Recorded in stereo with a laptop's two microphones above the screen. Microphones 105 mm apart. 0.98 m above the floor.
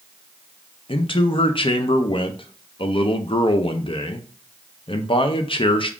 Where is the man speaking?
55° left (ahead or behind), 0.5 m.